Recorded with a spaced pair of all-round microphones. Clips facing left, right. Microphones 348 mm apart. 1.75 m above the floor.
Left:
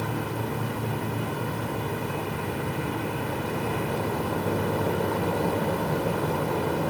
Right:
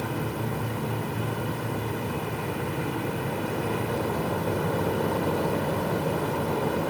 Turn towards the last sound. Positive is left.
No sound to turn to.